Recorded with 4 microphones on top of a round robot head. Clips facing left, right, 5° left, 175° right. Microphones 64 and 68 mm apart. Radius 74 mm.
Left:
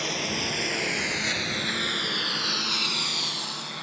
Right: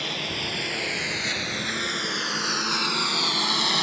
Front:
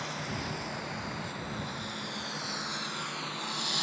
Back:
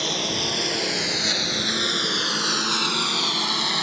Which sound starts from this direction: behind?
A lawn mower, at 0.0 s.